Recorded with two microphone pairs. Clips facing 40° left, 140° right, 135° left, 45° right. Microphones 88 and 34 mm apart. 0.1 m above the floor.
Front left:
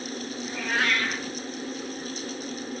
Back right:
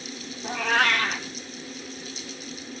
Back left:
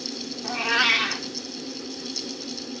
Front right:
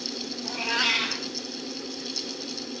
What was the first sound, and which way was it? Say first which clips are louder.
A cat meowing: back right 5 dB, back left 4 dB; 165° right.